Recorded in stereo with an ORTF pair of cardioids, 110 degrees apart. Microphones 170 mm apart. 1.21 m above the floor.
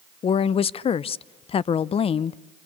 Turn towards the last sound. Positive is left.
turn(degrees=35)